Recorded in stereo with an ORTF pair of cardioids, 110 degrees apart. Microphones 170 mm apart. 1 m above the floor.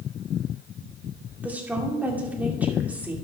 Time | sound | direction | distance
1.4 | a woman speaking | 10° right | 2 m